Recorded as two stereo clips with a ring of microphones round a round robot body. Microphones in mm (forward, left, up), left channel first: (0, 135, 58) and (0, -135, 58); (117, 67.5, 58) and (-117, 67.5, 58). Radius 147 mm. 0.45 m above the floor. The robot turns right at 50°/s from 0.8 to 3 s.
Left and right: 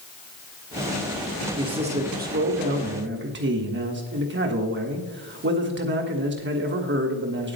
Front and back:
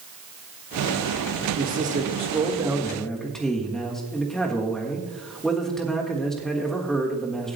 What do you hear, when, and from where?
1.6 s a man speaking: 160° right, 1.5 m; by 7.6 s 85° right, 1.5 m